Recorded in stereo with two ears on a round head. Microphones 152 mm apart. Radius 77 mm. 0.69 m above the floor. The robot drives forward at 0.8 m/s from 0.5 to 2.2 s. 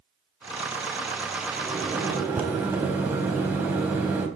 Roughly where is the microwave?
Centre.